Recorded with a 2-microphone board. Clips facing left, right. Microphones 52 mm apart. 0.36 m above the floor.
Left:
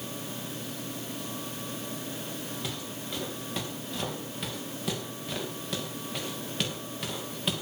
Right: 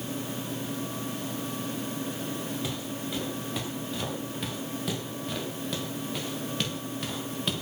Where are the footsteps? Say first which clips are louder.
Right 3 dB; centre (ahead or behind), 9.5 m; by 7.6 s 5° left (ahead or behind), 6.5 m.